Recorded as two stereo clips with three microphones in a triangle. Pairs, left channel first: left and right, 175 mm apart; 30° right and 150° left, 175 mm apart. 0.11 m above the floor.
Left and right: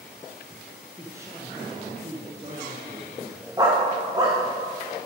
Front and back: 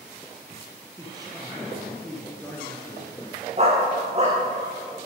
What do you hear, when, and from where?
0.9 s a man speaking: 160° right, 1.8 m; by 3.5 s 65° right, 1.7 m
3.6 s a dog barking: 160° right, 2.5 m